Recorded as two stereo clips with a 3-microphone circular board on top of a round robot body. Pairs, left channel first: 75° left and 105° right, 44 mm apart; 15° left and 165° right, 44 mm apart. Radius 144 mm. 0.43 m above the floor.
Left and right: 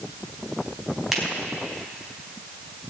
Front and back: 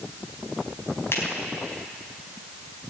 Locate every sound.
1.1 s a finger snap: 20° right, 4.5 m